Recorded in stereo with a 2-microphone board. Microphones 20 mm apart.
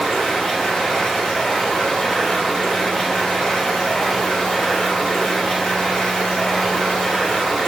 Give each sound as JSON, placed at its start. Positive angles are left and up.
{"t": 0.0, "sound": "running water", "side_deg": 45, "distance_m": 3.5}